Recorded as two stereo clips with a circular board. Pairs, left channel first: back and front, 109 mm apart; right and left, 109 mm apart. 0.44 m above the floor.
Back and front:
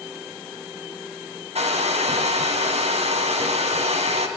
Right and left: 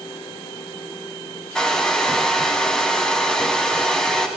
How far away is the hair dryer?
About 2.5 m.